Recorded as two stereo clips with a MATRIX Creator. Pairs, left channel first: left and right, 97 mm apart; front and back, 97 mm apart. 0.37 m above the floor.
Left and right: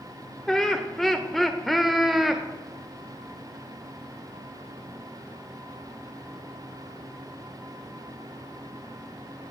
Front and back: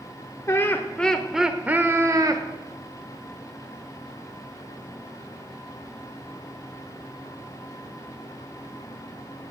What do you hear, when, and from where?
0.5 s laughter: 10° left, 1.0 m; by 2.4 s straight behind, 1.1 m